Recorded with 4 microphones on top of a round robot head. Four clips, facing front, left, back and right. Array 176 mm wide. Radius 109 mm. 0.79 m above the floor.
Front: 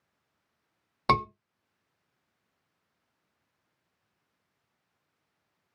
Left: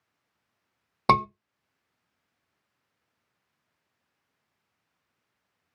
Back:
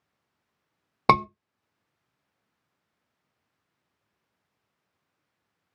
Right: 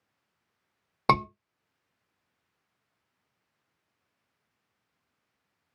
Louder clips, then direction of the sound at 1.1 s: Left 3 dB, back 5 dB; 175° left.